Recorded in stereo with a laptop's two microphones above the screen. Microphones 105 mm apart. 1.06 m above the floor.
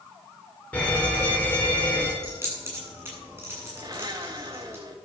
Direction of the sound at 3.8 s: 40° right (ahead or behind).